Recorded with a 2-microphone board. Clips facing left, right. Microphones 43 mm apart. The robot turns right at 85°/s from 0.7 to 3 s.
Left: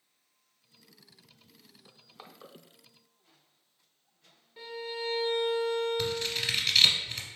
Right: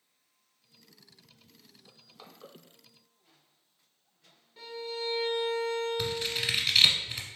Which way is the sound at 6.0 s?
10° right (ahead or behind).